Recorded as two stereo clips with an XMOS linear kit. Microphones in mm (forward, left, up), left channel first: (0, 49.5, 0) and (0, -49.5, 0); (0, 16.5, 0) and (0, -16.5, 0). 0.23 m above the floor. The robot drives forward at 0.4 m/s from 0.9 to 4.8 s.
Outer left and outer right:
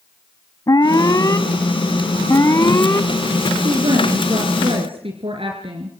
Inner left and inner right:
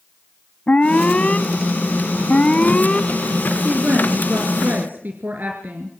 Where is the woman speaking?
65° right (ahead or behind), 3 m; by 5.9 s 70° right (ahead or behind), 3 m.